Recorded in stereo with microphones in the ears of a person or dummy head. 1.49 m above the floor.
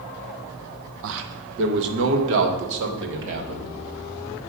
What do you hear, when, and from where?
1.0 s a man speaking: 65° right (ahead or behind), 1.0 m; by 3.7 s 70° right (ahead or behind), 2.5 m